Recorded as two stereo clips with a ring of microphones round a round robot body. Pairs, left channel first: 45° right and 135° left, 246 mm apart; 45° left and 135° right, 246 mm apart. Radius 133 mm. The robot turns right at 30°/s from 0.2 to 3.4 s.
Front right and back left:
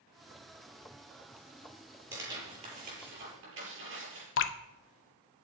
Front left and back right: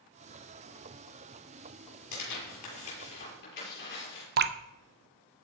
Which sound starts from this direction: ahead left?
Tearing paper, at 2.1 s.